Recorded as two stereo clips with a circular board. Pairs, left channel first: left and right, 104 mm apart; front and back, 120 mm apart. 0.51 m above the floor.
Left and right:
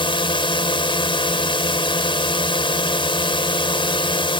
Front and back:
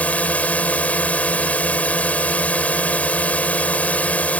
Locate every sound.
0.0 s a drone: 75° left